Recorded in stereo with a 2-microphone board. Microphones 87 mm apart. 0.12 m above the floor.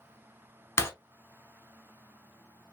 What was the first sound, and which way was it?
Breaking glass, 30° left (ahead or behind).